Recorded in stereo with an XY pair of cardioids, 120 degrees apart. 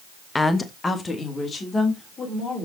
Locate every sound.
0.3 s a woman speaking: 15° left, 1.1 m; by 2.7 s 30° left, 4.5 m